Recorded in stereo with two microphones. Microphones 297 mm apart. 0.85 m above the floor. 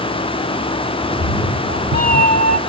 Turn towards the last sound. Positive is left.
turn(degrees=-50)  # may be behind; listen again after turning